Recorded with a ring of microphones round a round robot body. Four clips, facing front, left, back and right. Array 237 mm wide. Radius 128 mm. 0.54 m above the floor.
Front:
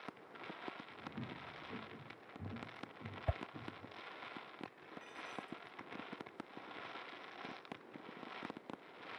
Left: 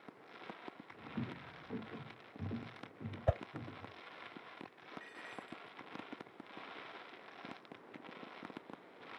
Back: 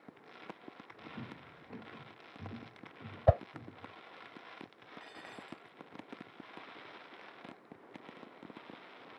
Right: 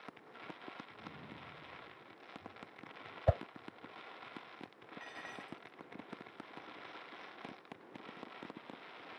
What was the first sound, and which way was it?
Footsteps, 90° left.